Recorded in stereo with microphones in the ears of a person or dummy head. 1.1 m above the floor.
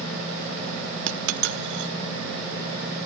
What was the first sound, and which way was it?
A dropped coin, 65° right (ahead or behind).